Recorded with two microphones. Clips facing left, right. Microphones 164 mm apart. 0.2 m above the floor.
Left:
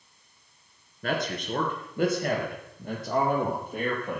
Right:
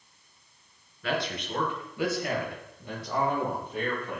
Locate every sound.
1.0 s a man speaking: 45° left (ahead or behind), 3 m; by 4.2 s 50° left (ahead or behind), 7 m